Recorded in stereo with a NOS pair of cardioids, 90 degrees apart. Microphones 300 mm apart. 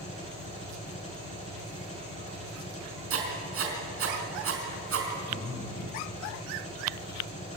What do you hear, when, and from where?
0.0 s an engine running: 25° left, 8.5 m
3.1 s writing: 50° right, 4.5 m
5.3 s breathing: 30° left, 4 m